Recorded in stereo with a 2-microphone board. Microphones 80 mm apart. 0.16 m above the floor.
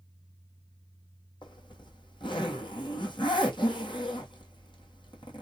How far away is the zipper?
About 1.7 m.